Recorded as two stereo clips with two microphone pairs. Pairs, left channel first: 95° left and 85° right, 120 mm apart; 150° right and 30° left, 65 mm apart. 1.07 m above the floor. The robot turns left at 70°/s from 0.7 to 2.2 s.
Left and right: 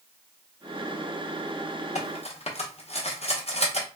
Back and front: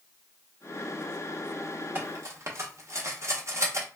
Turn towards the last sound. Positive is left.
turn(degrees=70)